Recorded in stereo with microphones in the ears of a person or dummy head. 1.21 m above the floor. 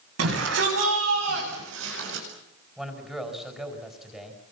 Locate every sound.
0.2 s a shout: 85° right, 9.5 m; by 2.2 s 80° right, 7.5 m
2.8 s a man speaking: 5° right (ahead or behind), 5 m